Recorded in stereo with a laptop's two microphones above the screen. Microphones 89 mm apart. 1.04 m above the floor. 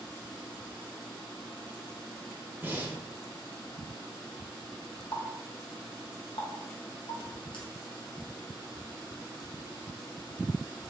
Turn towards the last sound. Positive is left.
turn(degrees=65)  # may be behind; listen again after turning